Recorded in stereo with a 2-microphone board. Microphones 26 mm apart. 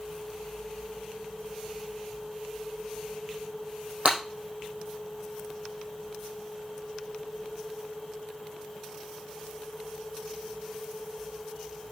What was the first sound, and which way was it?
Breaking glass, 45° right (ahead or behind).